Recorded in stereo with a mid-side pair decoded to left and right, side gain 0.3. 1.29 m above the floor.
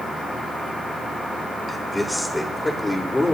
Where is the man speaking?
5° left, 4 m; by 3.3 s 25° left, 4 m.